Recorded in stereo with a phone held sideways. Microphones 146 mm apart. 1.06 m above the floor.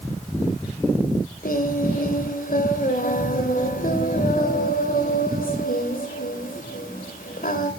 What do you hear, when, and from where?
1.4 s singing: 75° left (ahead or behind), 2.5 m